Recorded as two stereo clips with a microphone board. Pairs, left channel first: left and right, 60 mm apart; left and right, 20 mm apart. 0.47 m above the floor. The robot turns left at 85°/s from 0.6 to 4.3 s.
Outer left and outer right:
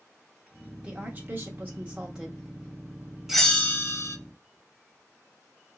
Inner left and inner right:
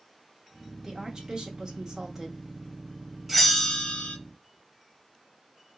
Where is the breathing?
I don't hear breathing.